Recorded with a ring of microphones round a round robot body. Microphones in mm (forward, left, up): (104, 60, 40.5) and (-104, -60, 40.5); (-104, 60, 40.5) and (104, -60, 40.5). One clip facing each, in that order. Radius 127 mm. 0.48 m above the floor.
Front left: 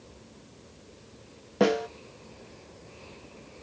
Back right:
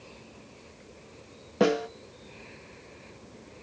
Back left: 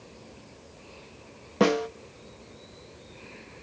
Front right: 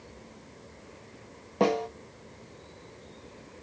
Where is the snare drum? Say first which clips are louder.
Even, back left 3 dB; 125° left, 0.5 m.